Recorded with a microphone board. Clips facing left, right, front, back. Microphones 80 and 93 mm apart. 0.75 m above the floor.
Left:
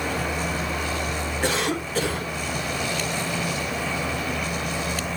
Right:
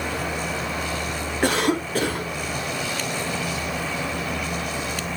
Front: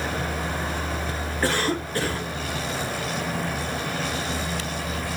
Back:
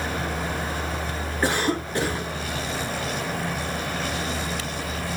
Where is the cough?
110° right, 1.8 m.